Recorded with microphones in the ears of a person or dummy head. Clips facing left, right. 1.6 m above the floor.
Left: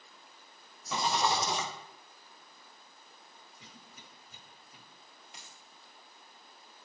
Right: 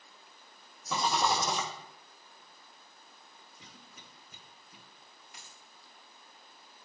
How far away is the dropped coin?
About 1.5 m.